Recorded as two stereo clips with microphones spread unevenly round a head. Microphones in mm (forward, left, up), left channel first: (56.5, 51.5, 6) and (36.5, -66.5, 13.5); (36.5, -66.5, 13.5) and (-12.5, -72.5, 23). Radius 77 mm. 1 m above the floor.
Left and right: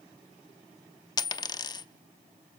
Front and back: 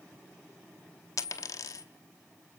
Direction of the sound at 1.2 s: 25° left.